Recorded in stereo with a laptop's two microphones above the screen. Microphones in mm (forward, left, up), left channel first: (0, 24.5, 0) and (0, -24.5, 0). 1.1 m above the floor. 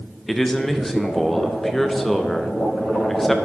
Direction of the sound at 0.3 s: 5° left (ahead or behind).